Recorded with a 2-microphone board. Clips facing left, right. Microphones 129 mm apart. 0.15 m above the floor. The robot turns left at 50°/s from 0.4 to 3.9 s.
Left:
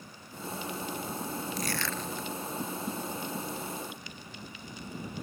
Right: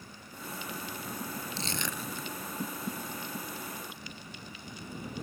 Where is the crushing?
30° right (ahead or behind); by 2.3 s centre (ahead or behind).